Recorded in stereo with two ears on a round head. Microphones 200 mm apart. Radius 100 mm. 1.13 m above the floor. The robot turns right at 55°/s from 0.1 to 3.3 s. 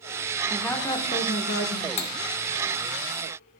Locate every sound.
0.5 s a woman speaking: straight ahead, 1.1 m; by 1.9 s 75° left, 1.1 m
2.0 s cutlery clinking: 30° left (ahead or behind), 0.8 m; by 2.1 s 20° left (ahead or behind), 0.8 m